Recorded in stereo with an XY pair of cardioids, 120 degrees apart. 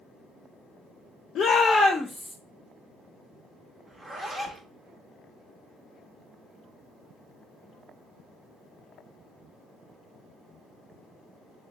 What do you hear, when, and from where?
1.4 s a shout: 55° left, 0.5 m; by 2.4 s 5° left, 0.8 m
3.9 s a zipper: 20° right, 0.9 m